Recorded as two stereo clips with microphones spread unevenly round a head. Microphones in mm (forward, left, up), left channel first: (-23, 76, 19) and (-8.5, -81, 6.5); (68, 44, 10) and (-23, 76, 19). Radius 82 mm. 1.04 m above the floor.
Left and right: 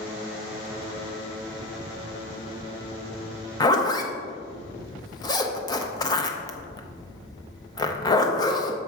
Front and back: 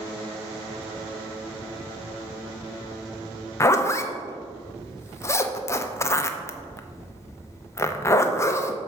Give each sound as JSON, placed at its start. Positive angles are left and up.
{"t": 3.6, "sound": "a zipper", "azimuth_deg": 30, "distance_m": 0.6}